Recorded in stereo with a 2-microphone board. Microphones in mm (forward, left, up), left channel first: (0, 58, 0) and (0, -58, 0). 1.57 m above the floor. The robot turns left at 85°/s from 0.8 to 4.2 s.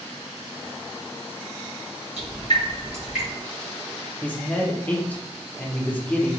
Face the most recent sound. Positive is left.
turn(degrees=15)  # may be behind; listen again after turning